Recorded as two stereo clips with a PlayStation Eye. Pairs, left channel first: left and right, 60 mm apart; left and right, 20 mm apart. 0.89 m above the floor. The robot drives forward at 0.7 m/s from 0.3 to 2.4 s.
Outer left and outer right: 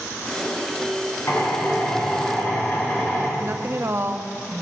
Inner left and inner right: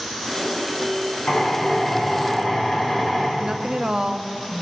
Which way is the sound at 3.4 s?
45° right (ahead or behind).